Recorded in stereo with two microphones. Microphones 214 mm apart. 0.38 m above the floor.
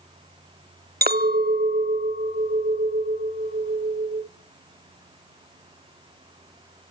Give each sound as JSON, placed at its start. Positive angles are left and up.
{"t": 1.0, "sound": "a clink", "side_deg": -45, "distance_m": 0.6}